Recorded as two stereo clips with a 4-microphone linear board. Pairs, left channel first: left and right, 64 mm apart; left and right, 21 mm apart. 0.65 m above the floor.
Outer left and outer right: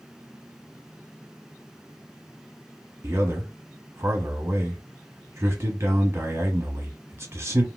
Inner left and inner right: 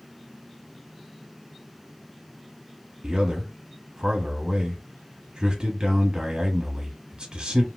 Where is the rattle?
I don't hear a rattle.